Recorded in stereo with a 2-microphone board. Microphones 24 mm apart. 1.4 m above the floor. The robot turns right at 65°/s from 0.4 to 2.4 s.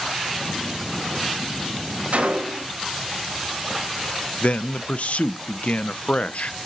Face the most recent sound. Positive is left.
turn(degrees=65)  # may be behind; listen again after turning